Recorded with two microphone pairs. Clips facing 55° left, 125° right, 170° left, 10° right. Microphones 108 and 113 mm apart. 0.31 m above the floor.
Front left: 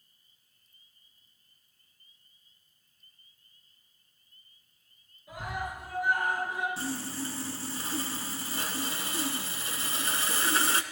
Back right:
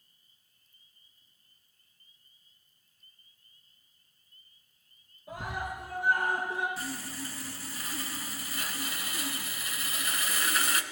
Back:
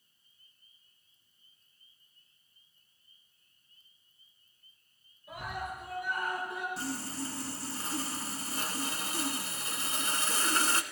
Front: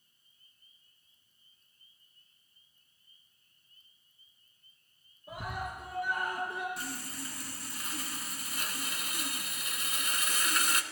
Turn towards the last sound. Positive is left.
turn(degrees=115)